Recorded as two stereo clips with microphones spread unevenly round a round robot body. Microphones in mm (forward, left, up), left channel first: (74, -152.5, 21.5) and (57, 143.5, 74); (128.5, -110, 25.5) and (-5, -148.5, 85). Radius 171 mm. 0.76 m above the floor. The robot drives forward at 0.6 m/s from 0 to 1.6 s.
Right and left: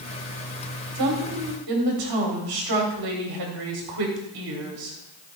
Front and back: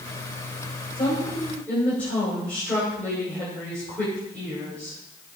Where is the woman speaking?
85° left, 2 m; by 5.0 s 95° left, 2 m.